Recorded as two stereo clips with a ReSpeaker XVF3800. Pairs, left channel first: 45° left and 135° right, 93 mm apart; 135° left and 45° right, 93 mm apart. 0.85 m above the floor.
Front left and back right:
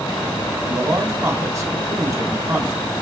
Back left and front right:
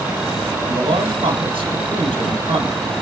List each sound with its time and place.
0.7 s a man speaking: 75° right, 3 m